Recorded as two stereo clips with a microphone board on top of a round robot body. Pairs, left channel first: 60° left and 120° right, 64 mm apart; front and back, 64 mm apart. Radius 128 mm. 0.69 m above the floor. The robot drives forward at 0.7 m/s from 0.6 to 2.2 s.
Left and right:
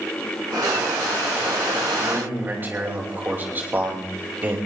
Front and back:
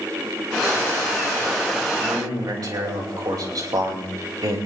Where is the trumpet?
I don't hear a trumpet.